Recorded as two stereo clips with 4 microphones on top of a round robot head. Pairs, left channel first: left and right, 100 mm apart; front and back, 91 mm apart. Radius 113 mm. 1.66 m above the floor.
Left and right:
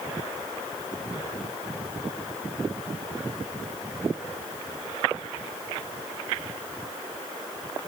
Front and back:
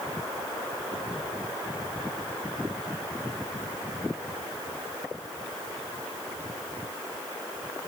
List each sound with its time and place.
Only background noise.